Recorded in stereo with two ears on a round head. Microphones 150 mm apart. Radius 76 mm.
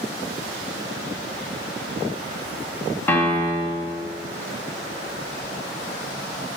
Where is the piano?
10° left (ahead or behind), 3 m.